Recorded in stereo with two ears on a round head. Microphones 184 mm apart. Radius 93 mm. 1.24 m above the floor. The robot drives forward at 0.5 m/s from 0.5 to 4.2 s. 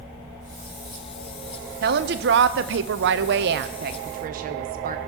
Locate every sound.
1.8 s a woman speaking: 50° right (ahead or behind), 1.0 m; by 5.0 s 45° right (ahead or behind), 1.1 m